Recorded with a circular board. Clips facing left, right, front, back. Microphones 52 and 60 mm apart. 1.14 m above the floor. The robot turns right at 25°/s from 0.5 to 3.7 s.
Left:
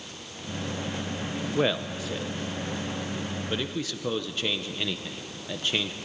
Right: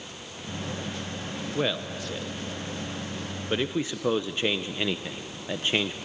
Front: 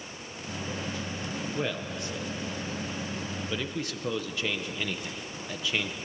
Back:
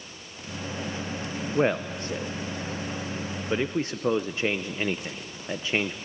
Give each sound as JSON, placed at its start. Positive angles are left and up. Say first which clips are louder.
{"t": 1.6, "sound": "a man speaking", "louder": "left 3 dB, back 11 dB", "azimuth_deg": 165, "distance_m": 0.6}